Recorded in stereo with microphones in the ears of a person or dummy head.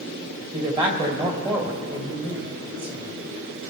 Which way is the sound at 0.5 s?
30° right (ahead or behind).